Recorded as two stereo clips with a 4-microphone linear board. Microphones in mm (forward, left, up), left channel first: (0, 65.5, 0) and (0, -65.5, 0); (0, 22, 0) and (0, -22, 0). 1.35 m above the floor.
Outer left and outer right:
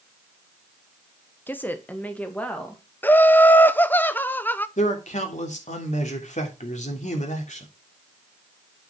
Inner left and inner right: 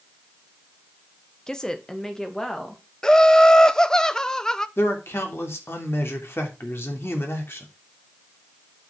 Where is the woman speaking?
15° left (ahead or behind), 1.1 m; by 2.8 s 10° left (ahead or behind), 2.5 m.